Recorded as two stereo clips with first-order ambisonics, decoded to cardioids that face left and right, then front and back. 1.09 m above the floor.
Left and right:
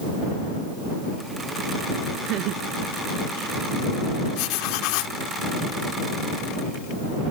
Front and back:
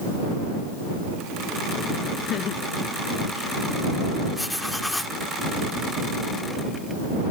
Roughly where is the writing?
Left.